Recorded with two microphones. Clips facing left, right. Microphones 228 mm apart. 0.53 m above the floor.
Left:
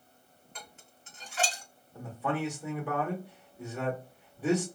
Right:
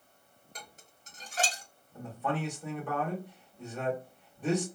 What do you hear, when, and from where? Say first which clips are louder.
0.6 s dishes clattering: even; 40° right (ahead or behind), 0.9 m
1.9 s a man speaking: left 1 dB; 10° left (ahead or behind), 1.2 m